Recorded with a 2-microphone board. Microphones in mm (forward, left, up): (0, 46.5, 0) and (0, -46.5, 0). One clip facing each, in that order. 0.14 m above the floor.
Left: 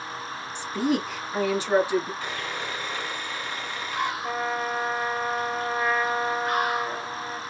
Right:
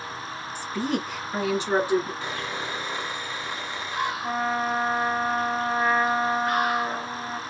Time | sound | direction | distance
0.6 | a woman speaking | 25° left (ahead or behind) | 1.3 m
2.2 | sawing | 20° right (ahead or behind) | 1.8 m
4.2 | a trumpet | 30° right (ahead or behind) | 1.4 m